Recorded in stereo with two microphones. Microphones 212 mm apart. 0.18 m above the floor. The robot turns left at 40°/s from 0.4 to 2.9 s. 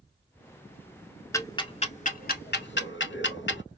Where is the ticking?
15° left (ahead or behind), 0.5 m; by 3.6 s 65° left (ahead or behind), 0.5 m.